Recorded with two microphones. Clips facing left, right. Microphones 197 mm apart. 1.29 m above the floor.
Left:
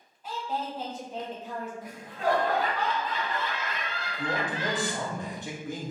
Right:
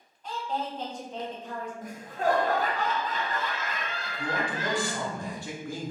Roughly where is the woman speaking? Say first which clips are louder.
Right 1 dB; centre.